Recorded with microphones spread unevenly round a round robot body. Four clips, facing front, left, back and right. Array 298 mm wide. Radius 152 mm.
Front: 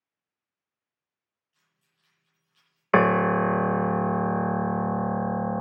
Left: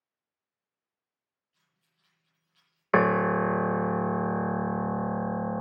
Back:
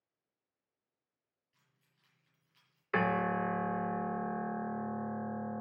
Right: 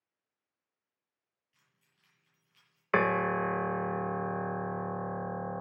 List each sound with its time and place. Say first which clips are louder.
1.5 s keys jangling: right 1 dB, front 2 dB; 130° right, 8.5 m
2.9 s a piano: left 5 dB, front 11 dB; 25° left, 0.5 m